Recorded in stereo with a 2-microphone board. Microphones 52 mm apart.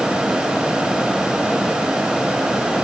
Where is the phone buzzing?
I don't hear a phone buzzing.